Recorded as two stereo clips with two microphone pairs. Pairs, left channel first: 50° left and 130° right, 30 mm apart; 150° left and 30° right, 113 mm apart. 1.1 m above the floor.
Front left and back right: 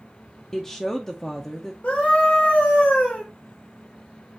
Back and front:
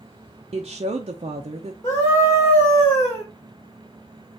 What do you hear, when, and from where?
0.5 s a woman speaking: 30° right, 0.6 m
1.8 s a scream: 95° left, 2 m